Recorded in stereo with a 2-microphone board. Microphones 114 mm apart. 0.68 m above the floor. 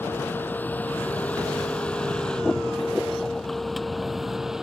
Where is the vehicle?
15° left (ahead or behind); by 4.6 s 5° right (ahead or behind).